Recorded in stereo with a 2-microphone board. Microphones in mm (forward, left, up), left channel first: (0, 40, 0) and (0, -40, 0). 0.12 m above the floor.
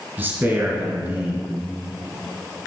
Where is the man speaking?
25° right (ahead or behind), 1.7 m.